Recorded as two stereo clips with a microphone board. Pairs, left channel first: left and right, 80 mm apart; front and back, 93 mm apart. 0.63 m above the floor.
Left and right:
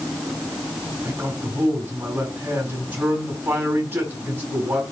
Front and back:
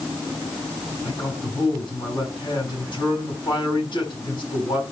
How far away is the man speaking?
About 5 m.